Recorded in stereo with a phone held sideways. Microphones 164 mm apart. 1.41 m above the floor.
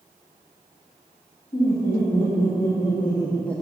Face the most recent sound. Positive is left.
turn(degrees=0)  # may be behind; listen again after turning